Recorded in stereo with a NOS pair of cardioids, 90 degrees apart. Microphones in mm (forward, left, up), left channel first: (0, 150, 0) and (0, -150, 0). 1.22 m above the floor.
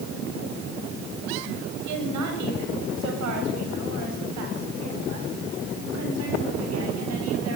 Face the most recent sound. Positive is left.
turn(degrees=-55)